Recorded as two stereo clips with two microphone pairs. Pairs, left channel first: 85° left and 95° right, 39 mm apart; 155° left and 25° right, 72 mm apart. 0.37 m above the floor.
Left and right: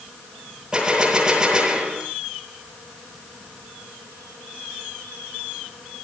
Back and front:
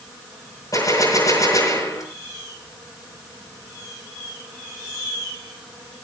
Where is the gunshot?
165° right, 8.5 m.